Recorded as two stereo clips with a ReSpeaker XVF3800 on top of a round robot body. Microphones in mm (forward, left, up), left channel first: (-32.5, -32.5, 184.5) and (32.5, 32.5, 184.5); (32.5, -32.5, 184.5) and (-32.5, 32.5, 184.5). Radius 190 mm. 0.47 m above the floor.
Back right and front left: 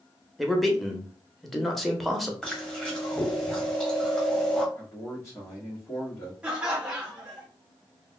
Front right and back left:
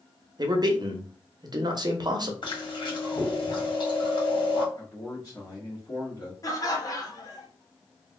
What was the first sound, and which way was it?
A man speaking, 135° left.